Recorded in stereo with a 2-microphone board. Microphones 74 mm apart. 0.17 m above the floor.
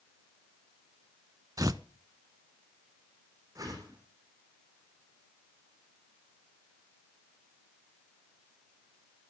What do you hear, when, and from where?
1.6 s tearing paper: 55° right (ahead or behind), 0.6 m
3.5 s a whoosh: 55° right (ahead or behind), 4 m